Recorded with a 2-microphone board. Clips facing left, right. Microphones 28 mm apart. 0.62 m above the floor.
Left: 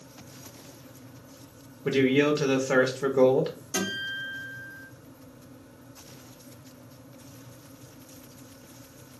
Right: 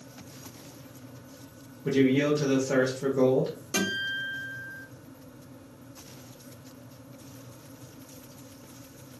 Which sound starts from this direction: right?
A guitar, at 3.7 s.